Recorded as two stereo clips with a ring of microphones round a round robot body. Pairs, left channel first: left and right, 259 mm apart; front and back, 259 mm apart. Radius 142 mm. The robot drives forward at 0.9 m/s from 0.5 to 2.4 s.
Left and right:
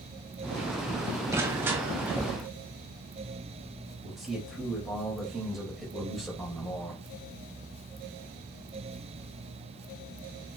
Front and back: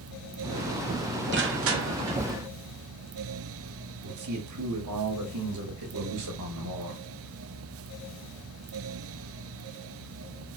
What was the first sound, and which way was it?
Crushing, 165° right.